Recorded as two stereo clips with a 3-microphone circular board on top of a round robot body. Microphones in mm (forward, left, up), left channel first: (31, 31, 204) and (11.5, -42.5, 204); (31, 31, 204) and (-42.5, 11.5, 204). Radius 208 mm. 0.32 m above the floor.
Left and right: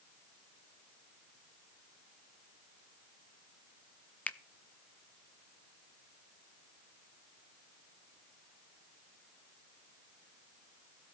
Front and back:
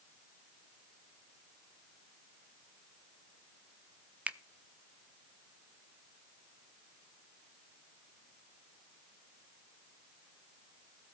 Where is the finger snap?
135° left, 1.1 m.